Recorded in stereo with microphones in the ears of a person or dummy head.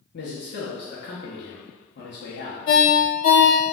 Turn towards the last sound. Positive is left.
turn(degrees=45)  # may be behind; listen again after turning